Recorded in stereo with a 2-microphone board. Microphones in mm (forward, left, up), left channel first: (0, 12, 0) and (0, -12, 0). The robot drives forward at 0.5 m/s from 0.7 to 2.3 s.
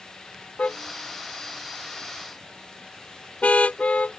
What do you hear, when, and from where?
0.6 s a car horn: 60° left (ahead or behind); by 4.2 s 65° left (ahead or behind)